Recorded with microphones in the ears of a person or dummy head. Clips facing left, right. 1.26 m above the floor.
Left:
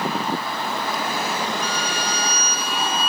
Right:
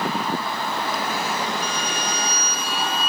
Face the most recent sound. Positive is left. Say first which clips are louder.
# left 1 dB
turn(degrees=40)  # may be behind; listen again after turning